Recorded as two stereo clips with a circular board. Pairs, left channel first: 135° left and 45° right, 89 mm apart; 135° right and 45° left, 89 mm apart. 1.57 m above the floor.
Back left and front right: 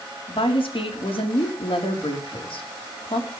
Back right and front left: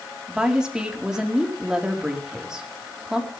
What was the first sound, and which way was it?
A woman speaking, 125° left.